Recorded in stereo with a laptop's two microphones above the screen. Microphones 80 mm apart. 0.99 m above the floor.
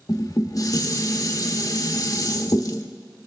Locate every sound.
0.1 s dishes clattering: 55° left (ahead or behind), 1.0 m